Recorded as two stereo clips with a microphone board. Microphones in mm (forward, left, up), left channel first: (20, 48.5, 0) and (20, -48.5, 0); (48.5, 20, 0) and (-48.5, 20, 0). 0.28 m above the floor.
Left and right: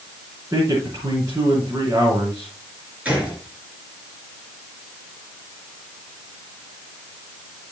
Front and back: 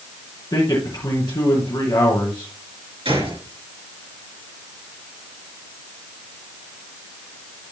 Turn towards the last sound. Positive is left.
turn(degrees=-165)